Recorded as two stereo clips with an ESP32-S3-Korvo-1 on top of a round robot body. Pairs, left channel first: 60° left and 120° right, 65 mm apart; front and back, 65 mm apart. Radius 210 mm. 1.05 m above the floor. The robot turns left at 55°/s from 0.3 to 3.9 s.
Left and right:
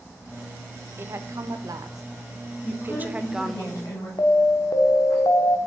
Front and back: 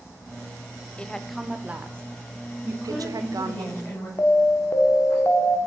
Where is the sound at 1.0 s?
70° right, 0.7 m; by 3.6 s 145° left, 0.7 m.